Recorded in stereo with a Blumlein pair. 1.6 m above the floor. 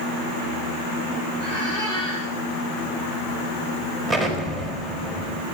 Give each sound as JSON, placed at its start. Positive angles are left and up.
{"t": 1.4, "sound": "a squeak", "azimuth_deg": -45, "distance_m": 8.5}
{"t": 4.1, "sound": "an explosion", "azimuth_deg": -25, "distance_m": 3.5}